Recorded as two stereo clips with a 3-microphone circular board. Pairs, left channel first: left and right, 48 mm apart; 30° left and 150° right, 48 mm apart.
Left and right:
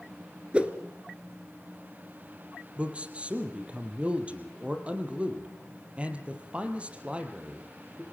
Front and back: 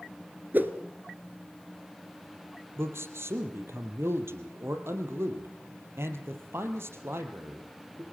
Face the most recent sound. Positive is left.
turn(degrees=-150)